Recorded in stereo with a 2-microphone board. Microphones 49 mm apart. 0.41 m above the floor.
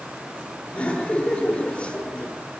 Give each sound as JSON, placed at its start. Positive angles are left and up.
{"t": 0.7, "sound": "laughter", "side_deg": 25, "distance_m": 5.5}